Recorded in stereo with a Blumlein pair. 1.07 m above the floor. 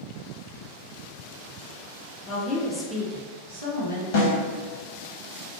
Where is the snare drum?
50° left, 1.3 m.